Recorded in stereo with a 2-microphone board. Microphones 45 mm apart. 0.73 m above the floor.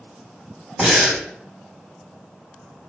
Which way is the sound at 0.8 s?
10° right (ahead or behind).